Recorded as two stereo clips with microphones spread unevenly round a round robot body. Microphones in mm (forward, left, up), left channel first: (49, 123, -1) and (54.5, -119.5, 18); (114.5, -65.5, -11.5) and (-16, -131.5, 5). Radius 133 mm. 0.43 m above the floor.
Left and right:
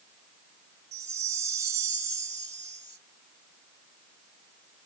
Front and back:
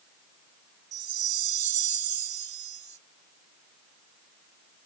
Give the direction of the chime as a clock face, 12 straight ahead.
6 o'clock.